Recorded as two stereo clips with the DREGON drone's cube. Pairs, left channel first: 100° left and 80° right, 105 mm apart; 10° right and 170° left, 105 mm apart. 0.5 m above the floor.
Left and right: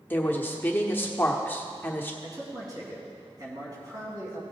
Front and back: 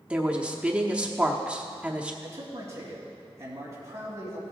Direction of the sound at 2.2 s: 130° right.